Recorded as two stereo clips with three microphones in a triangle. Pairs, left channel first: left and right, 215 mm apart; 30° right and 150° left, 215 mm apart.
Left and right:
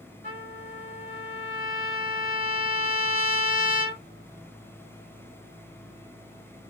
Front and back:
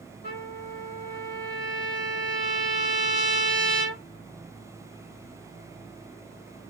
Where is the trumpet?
55° right, 2.0 m.